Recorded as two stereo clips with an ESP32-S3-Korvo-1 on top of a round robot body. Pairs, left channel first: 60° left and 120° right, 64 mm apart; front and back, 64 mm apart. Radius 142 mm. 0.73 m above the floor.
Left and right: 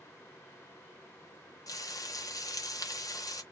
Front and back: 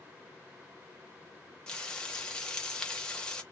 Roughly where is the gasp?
No gasp in this recording.